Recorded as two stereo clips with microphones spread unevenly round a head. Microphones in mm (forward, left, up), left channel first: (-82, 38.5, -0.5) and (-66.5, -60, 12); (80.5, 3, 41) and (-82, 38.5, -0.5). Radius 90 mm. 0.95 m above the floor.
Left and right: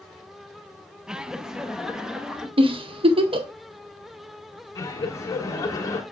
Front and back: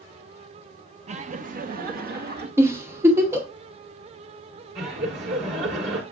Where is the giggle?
115° right, 1.0 m.